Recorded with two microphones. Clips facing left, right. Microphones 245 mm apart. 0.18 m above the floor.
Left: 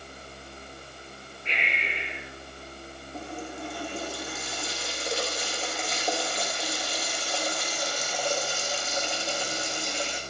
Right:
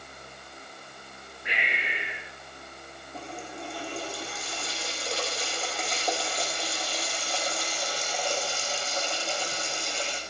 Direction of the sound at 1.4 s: 10° right (ahead or behind).